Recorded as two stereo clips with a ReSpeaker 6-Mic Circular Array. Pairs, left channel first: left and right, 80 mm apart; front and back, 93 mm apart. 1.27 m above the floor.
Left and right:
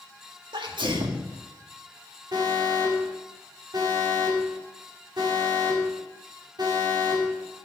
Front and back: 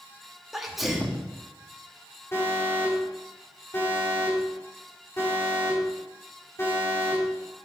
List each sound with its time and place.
0.5 s a sneeze: 90° right, 2.0 m
2.3 s an alarm: 60° right, 5.5 m